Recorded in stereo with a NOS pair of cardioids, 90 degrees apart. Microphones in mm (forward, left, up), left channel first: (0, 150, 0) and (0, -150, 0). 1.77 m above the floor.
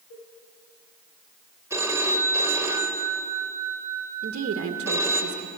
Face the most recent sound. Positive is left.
turn(degrees=-50)